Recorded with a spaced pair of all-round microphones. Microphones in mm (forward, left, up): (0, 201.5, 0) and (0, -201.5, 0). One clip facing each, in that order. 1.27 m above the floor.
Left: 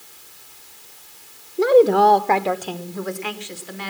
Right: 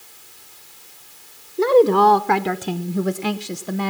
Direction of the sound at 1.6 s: 5° right (ahead or behind).